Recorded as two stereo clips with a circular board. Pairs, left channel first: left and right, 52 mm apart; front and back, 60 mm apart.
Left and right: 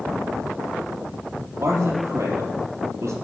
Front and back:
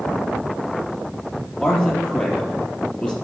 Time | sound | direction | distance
1.6 | a man speaking | 75° right | 4 m